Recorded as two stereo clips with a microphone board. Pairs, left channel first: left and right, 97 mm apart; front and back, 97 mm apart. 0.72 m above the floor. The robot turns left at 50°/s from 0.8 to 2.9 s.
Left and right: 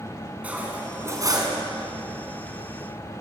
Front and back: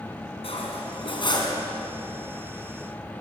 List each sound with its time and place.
0.4 s cutlery clinking: 15° right, 4.5 m; by 1.6 s 50° right, 4.5 m